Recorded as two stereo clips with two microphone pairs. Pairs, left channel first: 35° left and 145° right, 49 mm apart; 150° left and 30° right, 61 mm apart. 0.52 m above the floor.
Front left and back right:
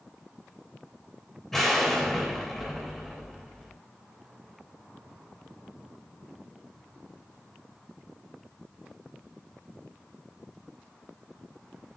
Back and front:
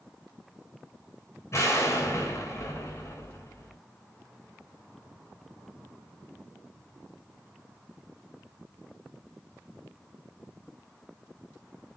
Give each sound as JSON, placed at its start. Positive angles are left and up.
{"t": 1.5, "sound": "an explosion", "azimuth_deg": 120, "distance_m": 3.0}